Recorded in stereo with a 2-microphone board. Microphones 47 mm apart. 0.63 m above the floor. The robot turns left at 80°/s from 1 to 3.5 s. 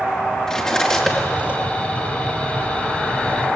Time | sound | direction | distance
0.5 | cutlery clinking | 10° left (ahead or behind) | 4.5 m